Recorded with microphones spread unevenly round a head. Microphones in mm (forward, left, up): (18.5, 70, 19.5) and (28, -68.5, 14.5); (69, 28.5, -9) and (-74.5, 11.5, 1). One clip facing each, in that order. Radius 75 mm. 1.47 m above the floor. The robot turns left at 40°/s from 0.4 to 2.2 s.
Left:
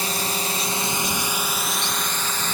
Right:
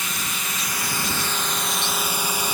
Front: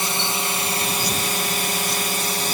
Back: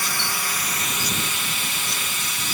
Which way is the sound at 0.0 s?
55° left.